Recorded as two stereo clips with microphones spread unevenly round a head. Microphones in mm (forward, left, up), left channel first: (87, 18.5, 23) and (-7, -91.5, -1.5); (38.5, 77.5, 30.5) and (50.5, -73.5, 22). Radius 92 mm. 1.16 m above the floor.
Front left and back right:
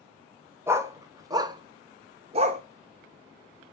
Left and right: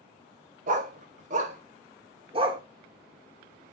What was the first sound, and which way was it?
A dog barking, 55° right.